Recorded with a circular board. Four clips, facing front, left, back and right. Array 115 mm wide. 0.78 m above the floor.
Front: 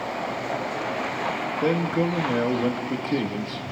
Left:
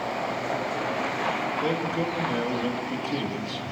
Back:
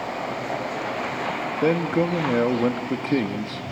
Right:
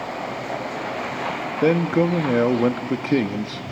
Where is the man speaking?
110° right, 1.3 m.